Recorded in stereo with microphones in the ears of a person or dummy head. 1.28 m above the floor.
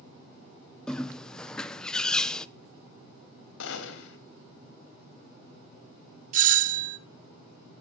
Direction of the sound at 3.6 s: 75° left (ahead or behind).